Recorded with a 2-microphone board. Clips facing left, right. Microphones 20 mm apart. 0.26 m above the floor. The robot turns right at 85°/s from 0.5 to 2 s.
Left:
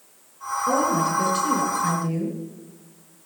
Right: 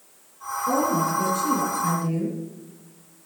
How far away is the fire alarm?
No fire alarm in this recording.